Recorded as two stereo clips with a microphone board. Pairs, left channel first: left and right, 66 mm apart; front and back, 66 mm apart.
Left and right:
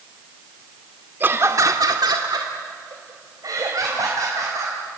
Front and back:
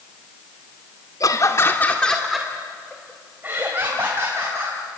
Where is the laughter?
30° right, 1.6 m; by 4.8 s 130° right, 5 m.